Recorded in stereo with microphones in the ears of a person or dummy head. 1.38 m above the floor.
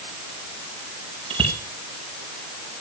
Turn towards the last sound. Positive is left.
turn(degrees=-35)  # may be behind; listen again after turning